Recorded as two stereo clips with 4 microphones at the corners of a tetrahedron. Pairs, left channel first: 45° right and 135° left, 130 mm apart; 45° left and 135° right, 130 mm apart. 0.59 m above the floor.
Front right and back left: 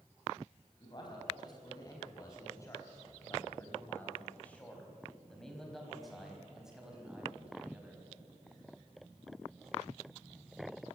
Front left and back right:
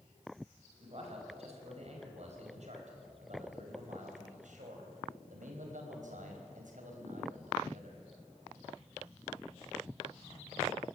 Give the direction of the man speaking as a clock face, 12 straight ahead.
3 o'clock.